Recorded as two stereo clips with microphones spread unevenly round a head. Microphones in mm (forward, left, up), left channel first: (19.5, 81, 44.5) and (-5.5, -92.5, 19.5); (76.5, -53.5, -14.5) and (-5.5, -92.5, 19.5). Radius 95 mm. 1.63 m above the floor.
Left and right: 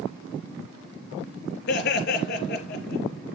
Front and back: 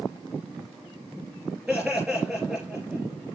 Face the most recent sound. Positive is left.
turn(degrees=120)